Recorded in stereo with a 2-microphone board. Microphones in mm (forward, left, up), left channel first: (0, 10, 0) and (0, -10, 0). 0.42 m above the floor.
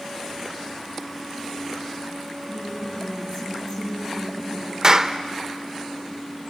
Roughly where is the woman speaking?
Left.